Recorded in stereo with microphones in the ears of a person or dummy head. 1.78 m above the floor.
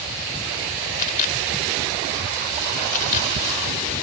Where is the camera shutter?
45° left (ahead or behind).